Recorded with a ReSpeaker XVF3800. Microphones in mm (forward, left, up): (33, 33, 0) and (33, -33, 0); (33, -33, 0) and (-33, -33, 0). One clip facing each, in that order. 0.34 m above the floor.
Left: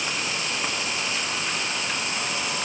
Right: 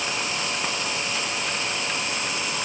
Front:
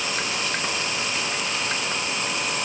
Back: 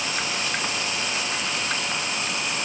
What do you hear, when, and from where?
Only background noise.